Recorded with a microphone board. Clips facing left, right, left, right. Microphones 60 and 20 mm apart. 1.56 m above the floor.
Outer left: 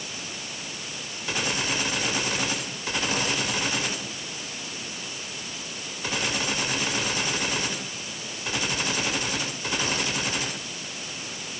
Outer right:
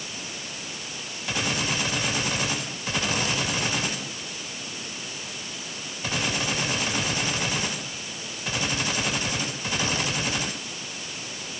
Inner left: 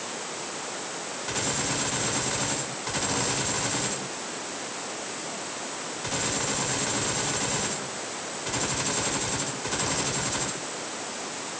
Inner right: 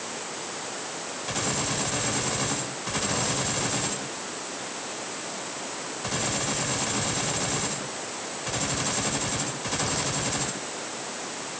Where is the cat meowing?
No cat meowing in this recording.